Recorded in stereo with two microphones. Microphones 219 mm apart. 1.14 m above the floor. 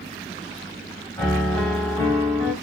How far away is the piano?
About 1.3 m.